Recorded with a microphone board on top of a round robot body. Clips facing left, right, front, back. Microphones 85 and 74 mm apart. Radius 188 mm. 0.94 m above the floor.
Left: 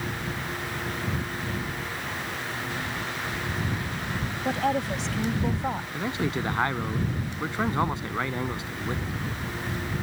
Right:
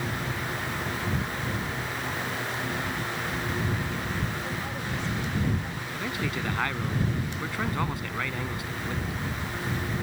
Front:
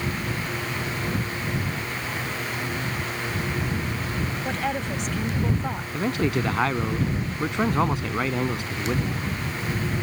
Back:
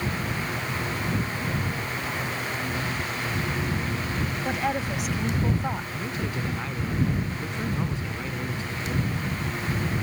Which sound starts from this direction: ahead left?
A man speaking, at 5.9 s.